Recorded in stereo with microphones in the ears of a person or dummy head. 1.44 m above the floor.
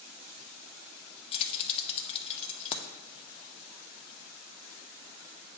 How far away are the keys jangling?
About 0.6 m.